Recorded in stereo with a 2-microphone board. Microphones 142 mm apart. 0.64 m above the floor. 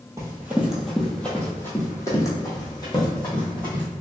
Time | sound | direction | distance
0.2 | running footsteps | 20° right (ahead or behind) | 1.1 m